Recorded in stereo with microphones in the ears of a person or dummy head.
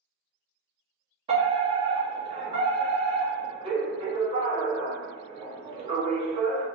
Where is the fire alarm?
30° right (ahead or behind), 1.1 m.